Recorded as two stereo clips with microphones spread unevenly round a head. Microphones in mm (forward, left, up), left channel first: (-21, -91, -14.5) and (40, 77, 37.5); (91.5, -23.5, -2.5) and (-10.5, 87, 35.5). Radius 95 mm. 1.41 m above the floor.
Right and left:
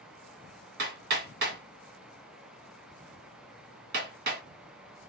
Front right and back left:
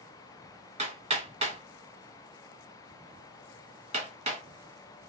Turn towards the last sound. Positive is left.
turn(degrees=95)